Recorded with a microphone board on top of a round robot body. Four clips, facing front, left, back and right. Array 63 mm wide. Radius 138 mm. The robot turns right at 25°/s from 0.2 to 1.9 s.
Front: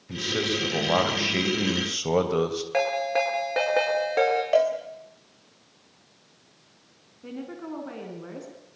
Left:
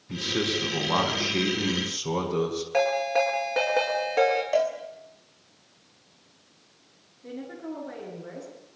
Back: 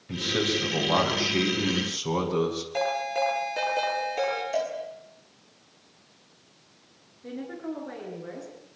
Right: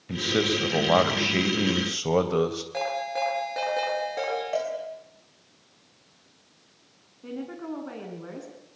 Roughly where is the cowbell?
Ahead.